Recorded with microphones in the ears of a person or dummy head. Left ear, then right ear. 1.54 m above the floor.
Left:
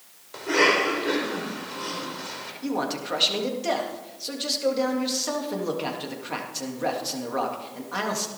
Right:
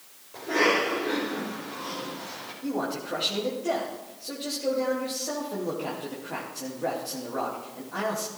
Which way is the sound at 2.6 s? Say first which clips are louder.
Left 2 dB; 50° left (ahead or behind).